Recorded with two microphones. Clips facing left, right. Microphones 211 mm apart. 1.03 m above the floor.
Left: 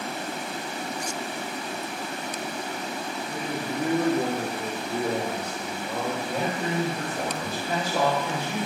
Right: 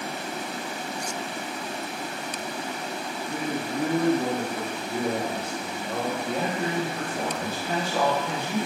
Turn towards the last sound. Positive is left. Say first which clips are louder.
# right 1 dB
turn(degrees=-55)  # may be behind; listen again after turning